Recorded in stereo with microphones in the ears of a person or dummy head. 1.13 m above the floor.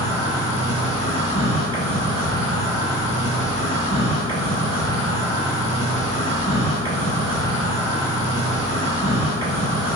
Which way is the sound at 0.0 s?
30° right (ahead or behind).